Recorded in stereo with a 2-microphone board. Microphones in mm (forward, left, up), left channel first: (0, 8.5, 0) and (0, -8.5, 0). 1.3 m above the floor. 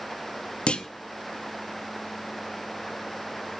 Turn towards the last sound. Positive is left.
turn(degrees=80)